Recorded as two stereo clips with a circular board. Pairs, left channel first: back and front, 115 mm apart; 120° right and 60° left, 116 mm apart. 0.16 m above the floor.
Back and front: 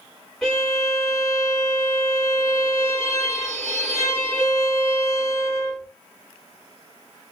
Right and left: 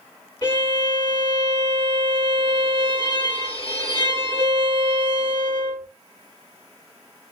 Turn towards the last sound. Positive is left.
turn(degrees=-90)